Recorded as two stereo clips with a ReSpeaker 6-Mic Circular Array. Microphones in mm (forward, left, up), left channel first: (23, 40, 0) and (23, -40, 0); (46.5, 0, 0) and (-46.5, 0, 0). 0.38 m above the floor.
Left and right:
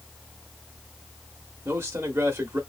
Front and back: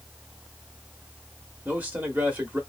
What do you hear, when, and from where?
1.6 s a man speaking: 120° right, 1.0 m